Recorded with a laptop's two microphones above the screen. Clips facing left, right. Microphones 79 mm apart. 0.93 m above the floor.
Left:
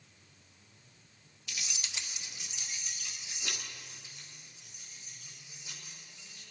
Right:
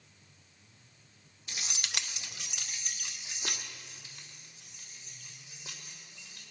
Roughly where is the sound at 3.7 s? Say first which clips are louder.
Even; right.